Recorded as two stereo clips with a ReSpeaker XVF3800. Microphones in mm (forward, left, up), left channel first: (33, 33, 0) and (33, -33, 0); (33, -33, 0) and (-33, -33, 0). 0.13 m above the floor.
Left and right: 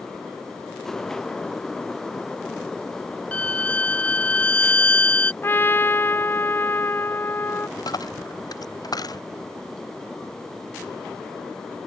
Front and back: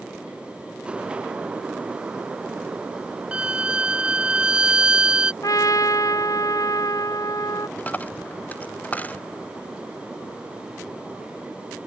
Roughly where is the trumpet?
Ahead left.